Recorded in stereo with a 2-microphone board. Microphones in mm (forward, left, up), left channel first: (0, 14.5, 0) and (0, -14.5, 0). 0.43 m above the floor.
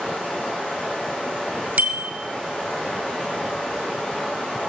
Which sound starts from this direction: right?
A bicycle bell, at 1.8 s.